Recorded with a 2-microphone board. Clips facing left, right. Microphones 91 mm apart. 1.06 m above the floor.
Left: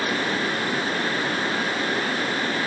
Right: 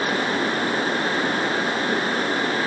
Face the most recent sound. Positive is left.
No sound to turn to.